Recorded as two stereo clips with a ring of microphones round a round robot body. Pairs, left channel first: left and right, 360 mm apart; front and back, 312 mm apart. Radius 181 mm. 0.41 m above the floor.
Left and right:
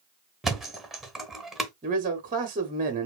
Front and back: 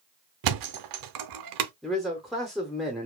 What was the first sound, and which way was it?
A thud, straight behind.